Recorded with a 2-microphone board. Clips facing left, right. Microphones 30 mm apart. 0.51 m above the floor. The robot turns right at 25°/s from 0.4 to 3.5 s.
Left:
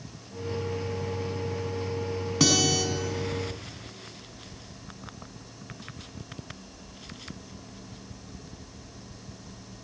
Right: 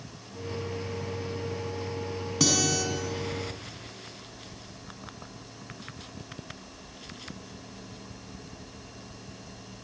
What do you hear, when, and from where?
2.4 s a guitar: 15° left (ahead or behind), 3.5 m; by 2.8 s 30° left (ahead or behind), 3.5 m